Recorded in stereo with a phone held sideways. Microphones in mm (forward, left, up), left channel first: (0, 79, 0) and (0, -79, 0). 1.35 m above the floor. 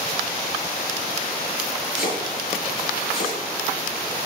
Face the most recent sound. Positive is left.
turn(degrees=75)  # may be behind; listen again after turning